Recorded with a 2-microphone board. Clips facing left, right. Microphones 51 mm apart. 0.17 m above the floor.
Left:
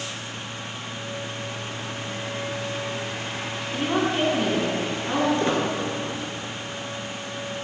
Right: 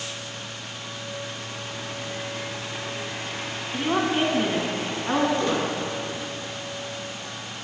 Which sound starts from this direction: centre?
A woman speaking, at 3.7 s.